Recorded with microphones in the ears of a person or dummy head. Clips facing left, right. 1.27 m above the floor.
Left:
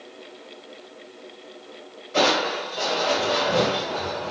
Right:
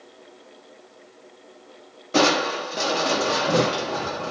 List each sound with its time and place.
2.1 s crushing: 60° right (ahead or behind), 0.9 m